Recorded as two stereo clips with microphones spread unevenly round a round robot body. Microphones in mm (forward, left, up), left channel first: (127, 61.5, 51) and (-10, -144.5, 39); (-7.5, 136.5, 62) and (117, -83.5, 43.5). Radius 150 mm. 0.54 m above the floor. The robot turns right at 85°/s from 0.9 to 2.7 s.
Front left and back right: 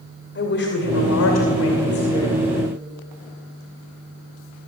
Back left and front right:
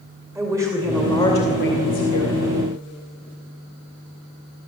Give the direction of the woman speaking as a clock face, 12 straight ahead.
11 o'clock.